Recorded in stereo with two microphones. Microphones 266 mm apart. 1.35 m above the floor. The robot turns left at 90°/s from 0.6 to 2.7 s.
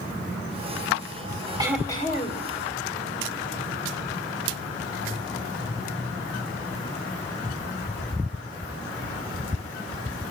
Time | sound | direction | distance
1.6 | throat clearing | 165° right | 1.7 m